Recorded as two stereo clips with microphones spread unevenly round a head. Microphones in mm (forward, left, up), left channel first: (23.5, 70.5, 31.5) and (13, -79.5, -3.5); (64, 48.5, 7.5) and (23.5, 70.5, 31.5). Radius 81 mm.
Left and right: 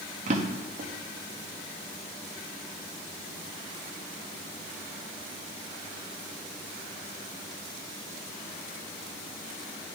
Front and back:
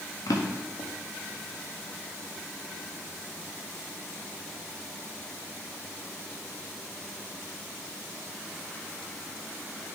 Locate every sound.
0.3 s a drawer: 50° right, 1.1 m